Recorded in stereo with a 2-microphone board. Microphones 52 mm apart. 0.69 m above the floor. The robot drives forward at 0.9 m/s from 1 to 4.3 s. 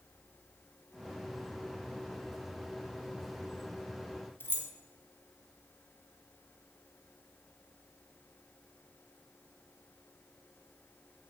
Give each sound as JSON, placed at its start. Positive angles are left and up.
{"t": 4.4, "sound": "keys jangling", "side_deg": 45, "distance_m": 0.8}